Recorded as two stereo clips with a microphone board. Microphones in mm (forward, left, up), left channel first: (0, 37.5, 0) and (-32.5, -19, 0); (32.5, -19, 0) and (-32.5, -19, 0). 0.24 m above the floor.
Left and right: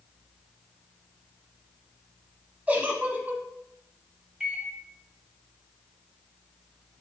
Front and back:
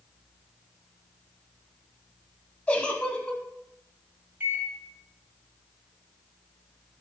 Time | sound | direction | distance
2.7 | a giggle | 65° right | 0.6 m
4.4 | a microwave | 170° left | 0.8 m